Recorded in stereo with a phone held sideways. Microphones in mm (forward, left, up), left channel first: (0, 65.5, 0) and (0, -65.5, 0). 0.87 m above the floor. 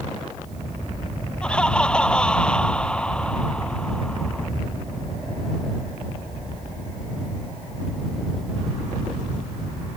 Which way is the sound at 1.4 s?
5° left (ahead or behind).